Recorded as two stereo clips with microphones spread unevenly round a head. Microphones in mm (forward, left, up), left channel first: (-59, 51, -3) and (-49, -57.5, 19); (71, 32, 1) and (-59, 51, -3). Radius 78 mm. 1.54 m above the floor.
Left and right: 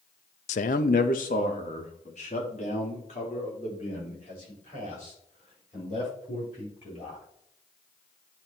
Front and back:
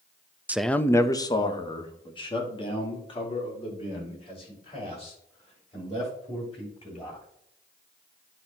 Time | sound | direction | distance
0.5 | a man speaking | 95° left | 0.5 m